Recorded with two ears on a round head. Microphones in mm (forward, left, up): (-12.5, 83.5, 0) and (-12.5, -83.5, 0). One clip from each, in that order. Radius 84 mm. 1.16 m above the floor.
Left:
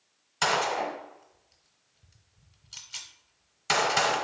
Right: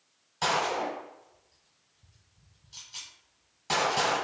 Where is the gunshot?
45° left (ahead or behind), 1.2 m.